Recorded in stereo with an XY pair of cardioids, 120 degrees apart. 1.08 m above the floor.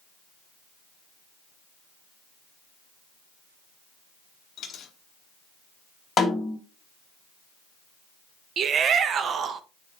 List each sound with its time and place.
4.6 s a dropped coin: 55° left, 1.1 m
6.2 s a snare drum: 30° left, 1.8 m
8.6 s a shout: 50° right, 0.7 m